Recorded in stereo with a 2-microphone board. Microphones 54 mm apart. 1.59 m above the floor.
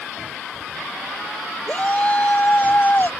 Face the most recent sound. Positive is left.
turn(degrees=40)  # may be behind; listen again after turning